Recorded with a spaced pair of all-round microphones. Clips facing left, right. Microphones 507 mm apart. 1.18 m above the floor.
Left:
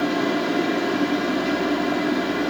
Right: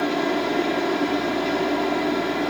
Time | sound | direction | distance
0.0 | a fan | 35° left (ahead or behind) | 0.7 m